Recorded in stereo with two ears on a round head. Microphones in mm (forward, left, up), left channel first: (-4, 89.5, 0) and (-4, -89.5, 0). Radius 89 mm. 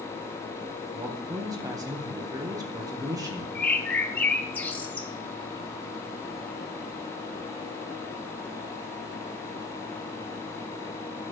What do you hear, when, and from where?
0.9 s a man speaking: 20° right (ahead or behind), 1.7 m
3.5 s a bird: 10° left (ahead or behind), 1.0 m